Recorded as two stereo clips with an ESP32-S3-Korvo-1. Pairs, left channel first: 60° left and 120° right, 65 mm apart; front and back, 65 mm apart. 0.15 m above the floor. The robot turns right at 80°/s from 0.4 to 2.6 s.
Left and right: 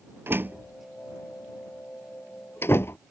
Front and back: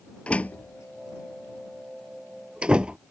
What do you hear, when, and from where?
0.3 s a door slam: 70° right; by 3.0 s 110° left